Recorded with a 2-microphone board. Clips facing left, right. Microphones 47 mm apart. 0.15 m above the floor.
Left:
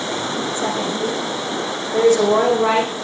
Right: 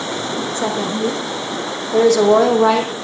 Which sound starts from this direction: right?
A woman speaking, at 0.6 s.